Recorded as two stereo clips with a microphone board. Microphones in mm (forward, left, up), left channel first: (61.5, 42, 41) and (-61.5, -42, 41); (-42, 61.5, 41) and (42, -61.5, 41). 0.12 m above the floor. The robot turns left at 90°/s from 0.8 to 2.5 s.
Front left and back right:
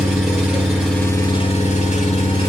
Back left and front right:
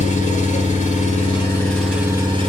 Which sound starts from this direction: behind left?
An engine running, at 0.0 s.